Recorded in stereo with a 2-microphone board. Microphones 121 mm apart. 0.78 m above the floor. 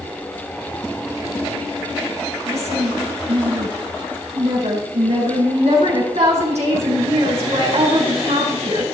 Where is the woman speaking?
70° right (ahead or behind), 8.5 m.